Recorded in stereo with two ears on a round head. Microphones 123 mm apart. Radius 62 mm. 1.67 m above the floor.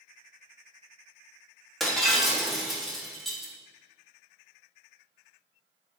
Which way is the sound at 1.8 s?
Centre (ahead or behind).